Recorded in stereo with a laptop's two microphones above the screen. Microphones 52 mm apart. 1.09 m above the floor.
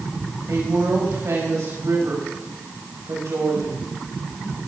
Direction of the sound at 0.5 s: 75° right (ahead or behind).